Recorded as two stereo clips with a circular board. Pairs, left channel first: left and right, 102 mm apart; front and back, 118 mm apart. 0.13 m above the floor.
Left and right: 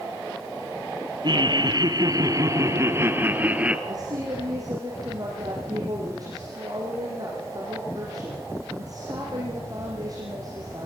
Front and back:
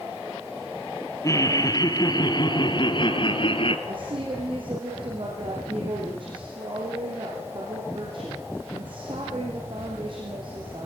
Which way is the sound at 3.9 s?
140° right.